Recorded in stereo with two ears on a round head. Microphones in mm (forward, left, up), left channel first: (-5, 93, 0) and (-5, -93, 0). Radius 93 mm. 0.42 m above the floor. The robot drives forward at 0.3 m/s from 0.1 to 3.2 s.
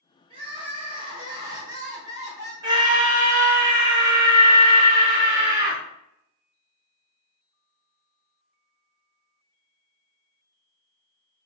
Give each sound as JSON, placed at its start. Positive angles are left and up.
{"t": 0.3, "sound": "crying", "side_deg": -25, "distance_m": 0.7}
{"t": 2.6, "sound": "a scream", "side_deg": -20, "distance_m": 0.8}